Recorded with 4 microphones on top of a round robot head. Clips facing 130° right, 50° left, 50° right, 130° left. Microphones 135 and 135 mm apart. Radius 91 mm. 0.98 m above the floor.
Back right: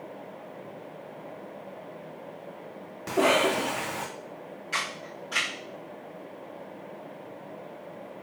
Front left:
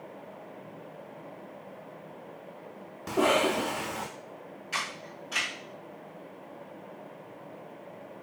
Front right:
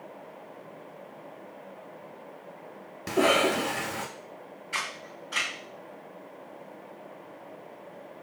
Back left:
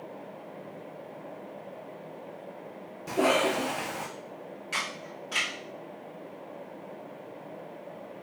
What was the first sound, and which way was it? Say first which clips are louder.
A cough: back right 2 dB, front right 1 dB; 40° right.